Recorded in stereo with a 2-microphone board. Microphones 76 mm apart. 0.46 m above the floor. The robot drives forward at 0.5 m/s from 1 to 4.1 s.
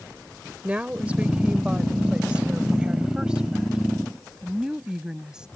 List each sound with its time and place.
0.6 s a woman speaking: 20° right (ahead or behind); by 5.5 s 10° right (ahead or behind)